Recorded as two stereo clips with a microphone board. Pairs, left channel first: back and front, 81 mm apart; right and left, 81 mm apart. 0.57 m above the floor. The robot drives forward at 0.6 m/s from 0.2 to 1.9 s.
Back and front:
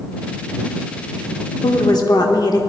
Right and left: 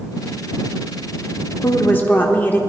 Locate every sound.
1.6 s a woman speaking: 150° right, 0.9 m; by 2.6 s 155° right, 1.0 m